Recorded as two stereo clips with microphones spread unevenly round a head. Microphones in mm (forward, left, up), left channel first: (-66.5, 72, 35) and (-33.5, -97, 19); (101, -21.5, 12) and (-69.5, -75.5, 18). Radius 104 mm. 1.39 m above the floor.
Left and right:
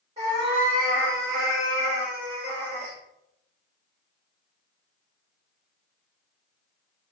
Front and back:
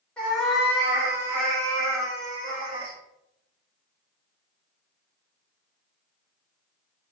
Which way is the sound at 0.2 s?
65° right.